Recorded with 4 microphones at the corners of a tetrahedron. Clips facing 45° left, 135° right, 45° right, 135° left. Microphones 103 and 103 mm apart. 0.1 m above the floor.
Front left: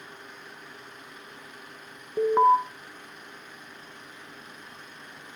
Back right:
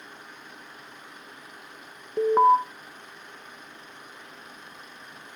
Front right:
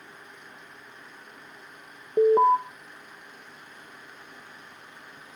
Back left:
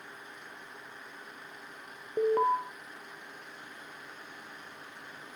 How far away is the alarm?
About 1.2 m.